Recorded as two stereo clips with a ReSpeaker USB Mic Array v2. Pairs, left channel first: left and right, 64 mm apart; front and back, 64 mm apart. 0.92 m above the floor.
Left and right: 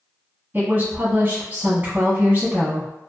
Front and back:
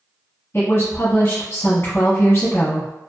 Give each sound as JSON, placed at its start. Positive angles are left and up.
{"t": 0.5, "sound": "a woman speaking", "azimuth_deg": -45, "distance_m": 1.0}